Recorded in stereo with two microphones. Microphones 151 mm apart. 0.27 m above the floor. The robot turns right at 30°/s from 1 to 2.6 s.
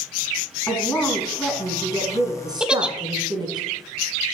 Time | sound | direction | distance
0.7 | a woman speaking | 165° left | 2 m
2.6 | a giggle | 5° right (ahead or behind) | 0.5 m